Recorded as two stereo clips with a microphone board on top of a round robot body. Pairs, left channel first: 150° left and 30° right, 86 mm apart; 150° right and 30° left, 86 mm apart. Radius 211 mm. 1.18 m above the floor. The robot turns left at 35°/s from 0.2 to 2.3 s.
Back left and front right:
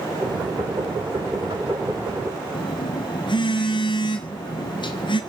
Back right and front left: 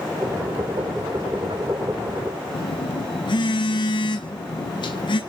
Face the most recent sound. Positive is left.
turn(degrees=180)